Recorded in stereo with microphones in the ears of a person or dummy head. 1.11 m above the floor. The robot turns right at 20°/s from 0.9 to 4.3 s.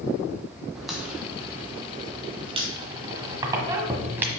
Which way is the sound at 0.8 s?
Straight behind.